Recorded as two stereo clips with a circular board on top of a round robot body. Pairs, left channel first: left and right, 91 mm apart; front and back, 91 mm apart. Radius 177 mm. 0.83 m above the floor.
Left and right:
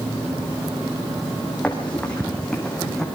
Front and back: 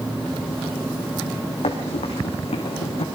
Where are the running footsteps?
15° left, 3 m; by 3.0 s 10° left, 4 m.